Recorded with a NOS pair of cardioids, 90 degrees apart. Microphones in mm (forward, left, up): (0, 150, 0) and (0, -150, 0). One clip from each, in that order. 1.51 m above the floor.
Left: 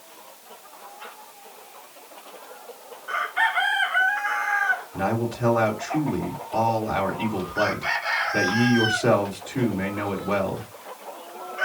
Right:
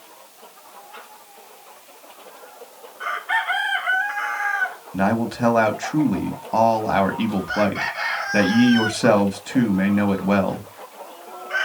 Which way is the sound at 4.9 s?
60° right.